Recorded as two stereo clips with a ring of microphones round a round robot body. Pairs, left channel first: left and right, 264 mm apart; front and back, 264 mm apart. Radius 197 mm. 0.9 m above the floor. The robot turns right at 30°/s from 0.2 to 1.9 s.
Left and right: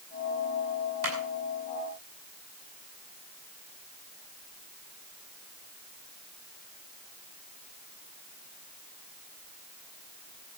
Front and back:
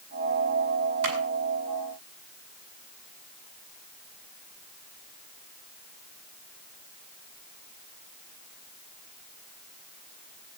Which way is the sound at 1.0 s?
135° right.